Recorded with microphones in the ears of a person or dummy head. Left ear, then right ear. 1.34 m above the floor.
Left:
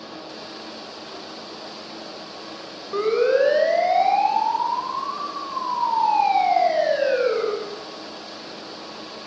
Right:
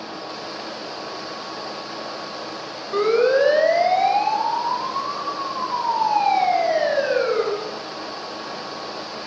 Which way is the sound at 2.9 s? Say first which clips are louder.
Right 2 dB; 20° right (ahead or behind).